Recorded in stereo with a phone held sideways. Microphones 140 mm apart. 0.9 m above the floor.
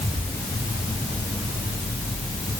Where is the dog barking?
I don't hear a dog barking.